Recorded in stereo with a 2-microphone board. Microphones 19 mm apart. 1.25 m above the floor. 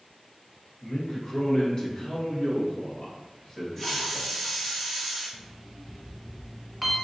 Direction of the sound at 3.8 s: 30° left (ahead or behind).